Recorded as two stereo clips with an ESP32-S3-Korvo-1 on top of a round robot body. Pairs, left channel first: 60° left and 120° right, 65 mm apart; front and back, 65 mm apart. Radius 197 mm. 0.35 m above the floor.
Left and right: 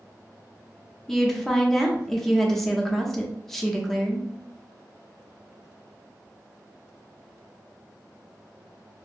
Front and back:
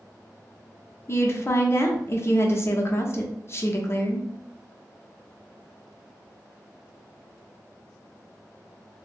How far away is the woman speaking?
About 1.0 m.